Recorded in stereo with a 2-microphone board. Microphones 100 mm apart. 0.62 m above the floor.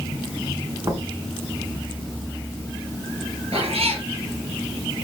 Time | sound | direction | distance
0.8 | knocking | 35° right (ahead or behind) | 5 m
3.5 | a cat meowing | 75° right (ahead or behind) | 6.5 m